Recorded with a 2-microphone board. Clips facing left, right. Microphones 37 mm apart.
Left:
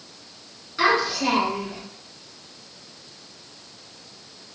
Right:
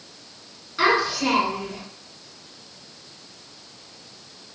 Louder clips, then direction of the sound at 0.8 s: Even; centre (ahead or behind).